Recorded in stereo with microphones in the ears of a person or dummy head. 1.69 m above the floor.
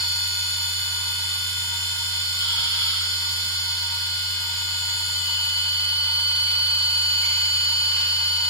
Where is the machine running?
5° left (ahead or behind), 1.7 m.